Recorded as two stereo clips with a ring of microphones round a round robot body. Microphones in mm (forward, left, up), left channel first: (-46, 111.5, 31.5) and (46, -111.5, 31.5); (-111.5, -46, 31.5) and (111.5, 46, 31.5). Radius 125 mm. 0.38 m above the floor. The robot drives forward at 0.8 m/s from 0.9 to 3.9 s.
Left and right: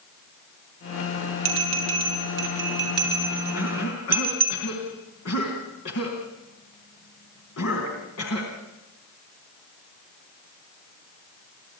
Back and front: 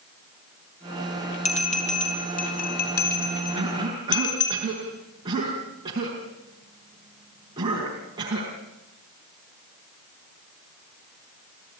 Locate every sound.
1.4 s a bell: 95° right, 5 m; by 4.5 s 115° right, 5.5 m
3.5 s a cough: 90° left, 4 m; by 8.5 s 95° left, 4 m